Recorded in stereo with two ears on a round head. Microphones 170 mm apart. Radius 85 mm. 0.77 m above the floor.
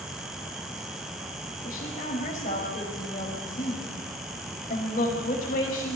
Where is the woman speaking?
40° left (ahead or behind), 5 m.